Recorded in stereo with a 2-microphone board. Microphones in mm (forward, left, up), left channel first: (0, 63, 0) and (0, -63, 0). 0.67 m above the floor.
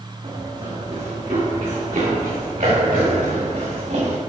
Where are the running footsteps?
60° right (ahead or behind), 3 m; by 4.2 s 75° right (ahead or behind), 3 m.